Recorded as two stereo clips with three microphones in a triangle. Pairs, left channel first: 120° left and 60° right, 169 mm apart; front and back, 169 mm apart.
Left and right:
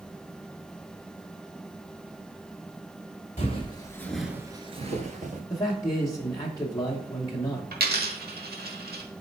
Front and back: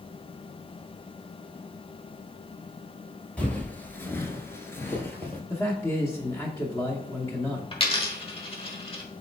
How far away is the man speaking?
About 1.1 m.